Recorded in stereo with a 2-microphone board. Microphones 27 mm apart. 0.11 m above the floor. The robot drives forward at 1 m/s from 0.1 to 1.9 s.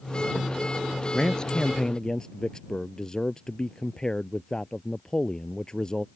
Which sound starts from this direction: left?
A man speaking, at 1.1 s.